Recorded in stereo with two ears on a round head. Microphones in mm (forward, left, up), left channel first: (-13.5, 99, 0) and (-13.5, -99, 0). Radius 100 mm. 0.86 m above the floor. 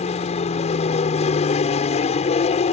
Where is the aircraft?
30° left (ahead or behind).